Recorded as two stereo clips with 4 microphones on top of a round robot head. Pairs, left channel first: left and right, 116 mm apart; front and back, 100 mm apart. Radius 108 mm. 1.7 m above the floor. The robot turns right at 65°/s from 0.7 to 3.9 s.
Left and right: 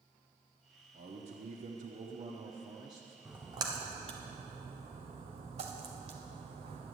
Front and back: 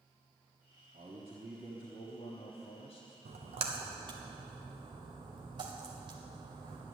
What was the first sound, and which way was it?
A man speaking, 135° right.